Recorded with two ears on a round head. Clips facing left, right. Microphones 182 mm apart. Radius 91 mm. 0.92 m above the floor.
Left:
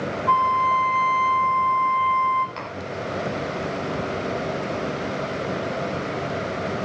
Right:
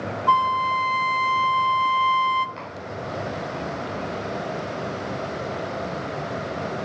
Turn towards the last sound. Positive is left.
turn(degrees=65)  # may be behind; listen again after turning